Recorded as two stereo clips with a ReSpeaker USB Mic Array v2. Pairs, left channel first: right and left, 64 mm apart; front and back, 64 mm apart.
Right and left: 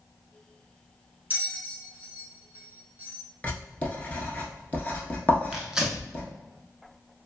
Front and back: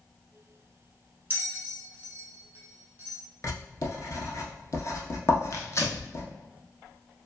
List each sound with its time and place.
1.3 s a bell: 135° left, 0.8 m
3.4 s writing: 25° right, 0.6 m
5.5 s tearing paper: 15° left, 0.6 m